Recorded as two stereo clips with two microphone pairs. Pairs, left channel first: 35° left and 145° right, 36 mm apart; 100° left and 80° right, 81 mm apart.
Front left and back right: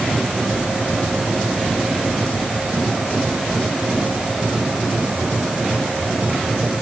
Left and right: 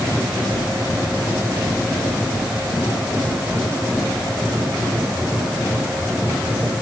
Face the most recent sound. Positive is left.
No sound to turn to.